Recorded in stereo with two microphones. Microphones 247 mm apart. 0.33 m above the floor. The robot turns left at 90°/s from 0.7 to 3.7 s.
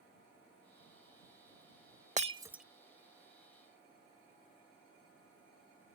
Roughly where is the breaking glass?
Right.